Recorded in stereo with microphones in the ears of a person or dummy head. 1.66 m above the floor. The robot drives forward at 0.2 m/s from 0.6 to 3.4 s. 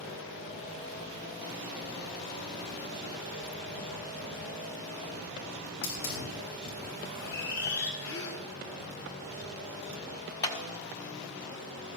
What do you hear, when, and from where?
5.8 s a hiss: 55° left (ahead or behind), 6.5 m
8.0 s a gasp: 70° left (ahead or behind), 2 m
10.4 s a clap: 15° left (ahead or behind), 1.0 m